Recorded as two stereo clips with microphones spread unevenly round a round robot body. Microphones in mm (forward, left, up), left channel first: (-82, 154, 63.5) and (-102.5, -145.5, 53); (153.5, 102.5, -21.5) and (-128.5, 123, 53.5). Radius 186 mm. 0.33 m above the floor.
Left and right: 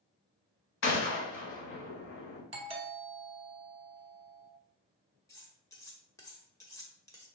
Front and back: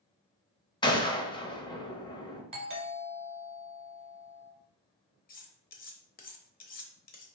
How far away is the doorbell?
About 1.3 m.